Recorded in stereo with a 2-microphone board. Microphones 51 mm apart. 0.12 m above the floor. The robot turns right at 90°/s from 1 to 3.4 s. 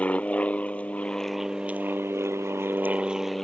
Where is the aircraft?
150° left; by 3.5 s 5° left.